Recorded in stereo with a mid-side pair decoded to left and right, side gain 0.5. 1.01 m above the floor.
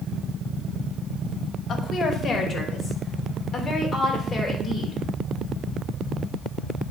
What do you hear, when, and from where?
1.7 s a woman speaking: 40° left, 2 m; by 5.0 s 15° left, 4 m